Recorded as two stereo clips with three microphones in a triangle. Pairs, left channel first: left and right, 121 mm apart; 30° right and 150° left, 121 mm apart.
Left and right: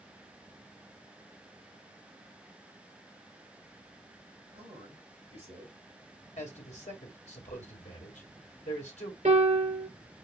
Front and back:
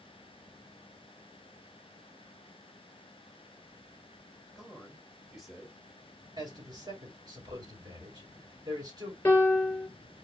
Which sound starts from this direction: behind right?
A man speaking, at 4.5 s.